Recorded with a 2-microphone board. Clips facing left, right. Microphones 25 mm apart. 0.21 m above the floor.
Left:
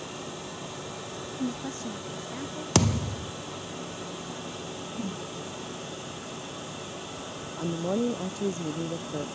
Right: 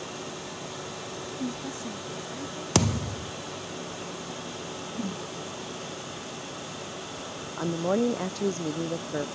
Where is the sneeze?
I don't hear a sneeze.